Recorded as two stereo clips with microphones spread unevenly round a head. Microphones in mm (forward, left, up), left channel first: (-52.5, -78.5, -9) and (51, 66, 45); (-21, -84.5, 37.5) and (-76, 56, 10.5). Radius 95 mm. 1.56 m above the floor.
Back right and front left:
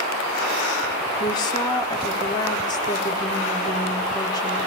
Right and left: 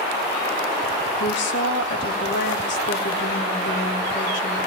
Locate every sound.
1.2 s a woman speaking: 55° right, 3.5 m